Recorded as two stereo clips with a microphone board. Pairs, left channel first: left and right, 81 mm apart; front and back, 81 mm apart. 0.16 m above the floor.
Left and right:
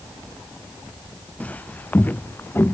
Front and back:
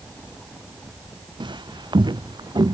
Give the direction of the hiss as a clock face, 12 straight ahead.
I don't hear a hiss.